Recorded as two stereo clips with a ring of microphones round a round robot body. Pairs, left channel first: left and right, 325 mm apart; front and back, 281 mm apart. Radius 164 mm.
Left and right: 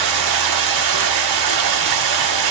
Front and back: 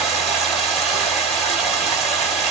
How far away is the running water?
About 1.7 m.